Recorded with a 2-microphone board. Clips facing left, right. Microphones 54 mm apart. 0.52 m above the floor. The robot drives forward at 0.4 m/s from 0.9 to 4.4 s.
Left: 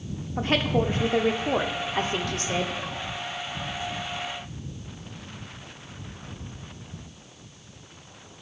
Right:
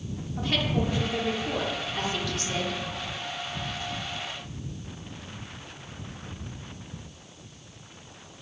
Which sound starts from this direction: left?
A woman speaking, at 0.4 s.